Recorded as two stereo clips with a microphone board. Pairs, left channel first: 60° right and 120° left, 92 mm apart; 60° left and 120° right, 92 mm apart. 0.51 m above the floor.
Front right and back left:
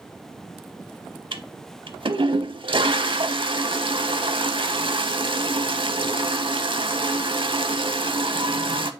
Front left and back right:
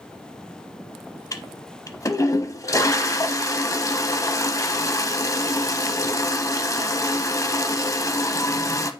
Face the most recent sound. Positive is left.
turn(degrees=110)